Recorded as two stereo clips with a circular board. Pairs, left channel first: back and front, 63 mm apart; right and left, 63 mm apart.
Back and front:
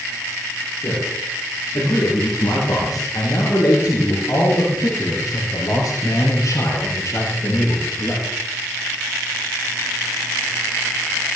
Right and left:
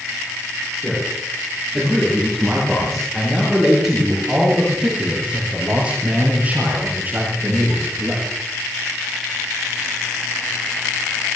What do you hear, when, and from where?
0.8 s a man speaking: 175° right, 9.5 m; by 8.3 s 140° left, 6 m